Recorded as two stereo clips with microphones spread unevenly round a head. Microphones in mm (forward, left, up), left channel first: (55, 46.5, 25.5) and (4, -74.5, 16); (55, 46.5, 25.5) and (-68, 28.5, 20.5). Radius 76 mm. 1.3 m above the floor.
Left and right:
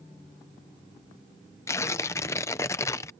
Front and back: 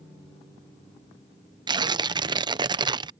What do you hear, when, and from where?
1.7 s tearing paper: 140° left